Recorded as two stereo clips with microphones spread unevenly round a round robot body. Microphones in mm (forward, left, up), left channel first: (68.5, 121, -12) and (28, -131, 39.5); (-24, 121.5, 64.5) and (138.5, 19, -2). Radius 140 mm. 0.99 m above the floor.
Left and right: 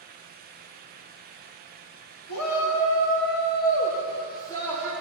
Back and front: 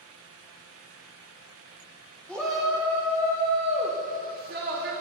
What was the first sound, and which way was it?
A shout, 60° left.